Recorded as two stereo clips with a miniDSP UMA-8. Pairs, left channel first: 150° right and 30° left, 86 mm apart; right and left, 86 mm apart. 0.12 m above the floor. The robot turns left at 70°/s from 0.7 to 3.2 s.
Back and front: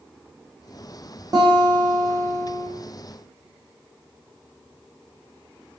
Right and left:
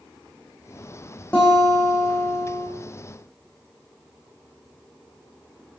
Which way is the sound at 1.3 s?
15° right.